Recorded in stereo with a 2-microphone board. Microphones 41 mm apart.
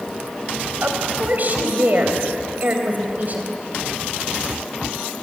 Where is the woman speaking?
45° right (ahead or behind), 3.5 m.